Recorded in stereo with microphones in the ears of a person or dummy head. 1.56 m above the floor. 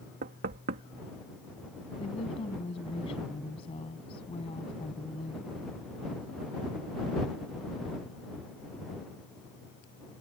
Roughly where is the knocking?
Right.